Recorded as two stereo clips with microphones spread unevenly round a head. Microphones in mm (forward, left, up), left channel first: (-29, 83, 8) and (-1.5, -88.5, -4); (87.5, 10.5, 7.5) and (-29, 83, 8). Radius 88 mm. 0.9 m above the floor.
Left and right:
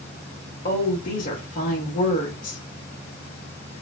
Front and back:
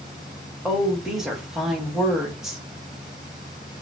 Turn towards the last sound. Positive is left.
turn(degrees=60)